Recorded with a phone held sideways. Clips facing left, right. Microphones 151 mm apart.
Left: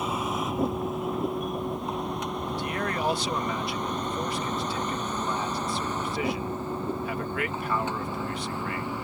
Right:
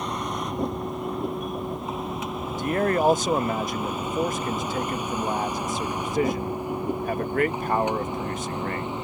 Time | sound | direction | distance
0.0 | a vehicle | 5° left (ahead or behind) | ?
2.5 | a man speaking | 45° right (ahead or behind) | ?